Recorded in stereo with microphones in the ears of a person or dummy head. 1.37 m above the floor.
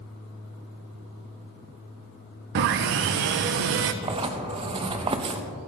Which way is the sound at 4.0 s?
25° right (ahead or behind).